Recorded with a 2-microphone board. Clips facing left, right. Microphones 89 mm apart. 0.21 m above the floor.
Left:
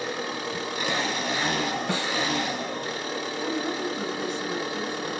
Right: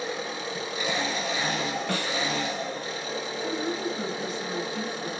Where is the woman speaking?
15° left (ahead or behind), 1.6 m.